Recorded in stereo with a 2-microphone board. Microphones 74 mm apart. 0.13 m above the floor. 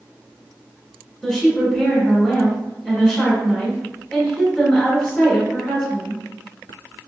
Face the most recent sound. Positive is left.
turn(degrees=10)  # may be behind; listen again after turning